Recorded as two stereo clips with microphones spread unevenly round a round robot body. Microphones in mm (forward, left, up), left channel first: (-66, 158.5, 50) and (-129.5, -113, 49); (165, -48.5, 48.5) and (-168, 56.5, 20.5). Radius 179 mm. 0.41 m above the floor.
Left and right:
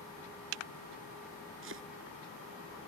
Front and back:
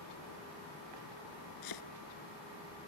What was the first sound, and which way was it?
Chopping, 45° right.